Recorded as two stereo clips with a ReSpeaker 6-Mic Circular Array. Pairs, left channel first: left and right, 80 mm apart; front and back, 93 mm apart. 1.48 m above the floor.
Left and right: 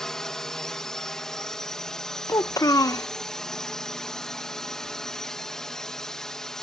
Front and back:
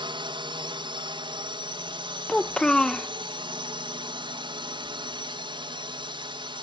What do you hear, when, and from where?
0.0 s a drone: 170° left
2.3 s a child speaking: 80° left